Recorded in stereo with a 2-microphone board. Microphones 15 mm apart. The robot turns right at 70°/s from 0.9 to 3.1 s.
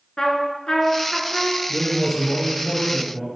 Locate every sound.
0.2 s a trumpet: 135° left, 0.7 m; by 1.6 s straight behind, 0.7 m
1.7 s a man speaking: 10° right (ahead or behind), 1.3 m; by 3.3 s 20° left (ahead or behind), 1.3 m